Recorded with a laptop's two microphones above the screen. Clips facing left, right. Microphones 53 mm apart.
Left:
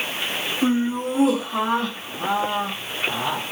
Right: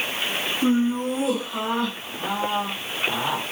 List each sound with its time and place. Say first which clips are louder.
0.6 s laughter: even; 25° left (ahead or behind), 3 m; by 3.4 s 30° right (ahead or behind), 0.8 m